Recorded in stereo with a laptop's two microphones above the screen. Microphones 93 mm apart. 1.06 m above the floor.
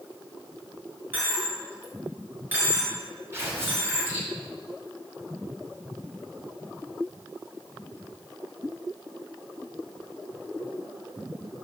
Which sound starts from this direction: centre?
A dropped coin, at 1.1 s.